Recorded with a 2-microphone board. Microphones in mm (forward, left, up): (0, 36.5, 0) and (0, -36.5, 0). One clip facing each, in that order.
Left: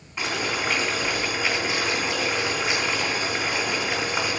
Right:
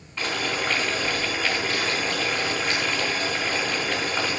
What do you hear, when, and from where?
0.2 s boiling: 15° left (ahead or behind), 3.5 m